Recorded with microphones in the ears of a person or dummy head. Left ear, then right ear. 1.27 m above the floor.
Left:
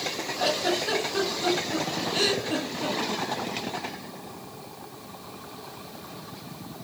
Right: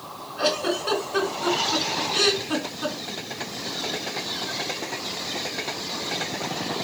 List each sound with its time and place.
0.4 s a giggle: 45° right (ahead or behind), 4 m